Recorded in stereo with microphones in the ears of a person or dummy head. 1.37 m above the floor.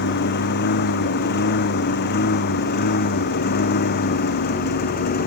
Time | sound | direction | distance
0.0 | a lawn mower | 55° left (ahead or behind) | ?